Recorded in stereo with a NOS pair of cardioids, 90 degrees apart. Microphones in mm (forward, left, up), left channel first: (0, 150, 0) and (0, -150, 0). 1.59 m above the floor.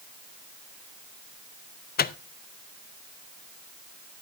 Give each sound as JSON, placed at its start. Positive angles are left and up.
{"t": 2.0, "sound": "a microwave", "azimuth_deg": 35, "distance_m": 0.6}